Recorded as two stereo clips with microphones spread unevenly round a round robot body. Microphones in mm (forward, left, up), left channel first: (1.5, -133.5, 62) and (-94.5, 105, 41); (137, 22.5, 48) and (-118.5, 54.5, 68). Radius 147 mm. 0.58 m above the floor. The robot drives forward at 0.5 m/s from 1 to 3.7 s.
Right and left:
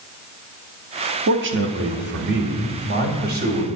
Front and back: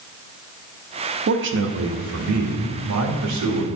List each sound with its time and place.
1.3 s a man speaking: 130° left, 0.9 m; by 3.6 s 160° left, 1.8 m